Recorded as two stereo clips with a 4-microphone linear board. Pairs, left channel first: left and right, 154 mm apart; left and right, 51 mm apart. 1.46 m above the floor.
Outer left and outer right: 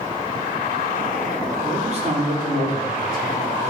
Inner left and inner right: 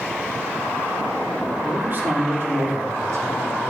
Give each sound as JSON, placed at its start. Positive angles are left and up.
{"t": 1.6, "sound": "a man speaking", "side_deg": -40, "distance_m": 3.5}